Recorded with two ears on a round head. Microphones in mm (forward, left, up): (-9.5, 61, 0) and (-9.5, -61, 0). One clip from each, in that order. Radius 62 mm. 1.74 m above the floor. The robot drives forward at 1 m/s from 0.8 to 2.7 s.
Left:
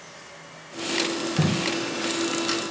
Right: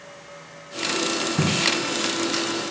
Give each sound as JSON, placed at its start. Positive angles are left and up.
{"t": 1.4, "sound": "tape being pulled", "side_deg": -75, "distance_m": 1.4}